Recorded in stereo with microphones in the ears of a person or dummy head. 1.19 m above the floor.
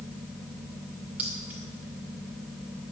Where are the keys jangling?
10° right (ahead or behind), 2.5 m.